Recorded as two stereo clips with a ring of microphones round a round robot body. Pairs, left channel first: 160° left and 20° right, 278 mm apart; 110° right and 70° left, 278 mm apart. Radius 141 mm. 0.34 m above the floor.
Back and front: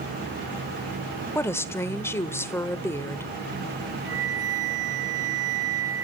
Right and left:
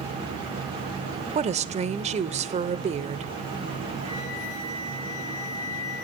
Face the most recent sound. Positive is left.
turn(degrees=40)